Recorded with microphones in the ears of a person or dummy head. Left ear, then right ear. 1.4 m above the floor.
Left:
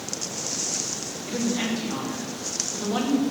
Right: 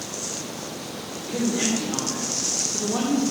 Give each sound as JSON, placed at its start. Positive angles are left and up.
{"t": 1.3, "sound": "a woman speaking", "side_deg": 70, "distance_m": 2.5}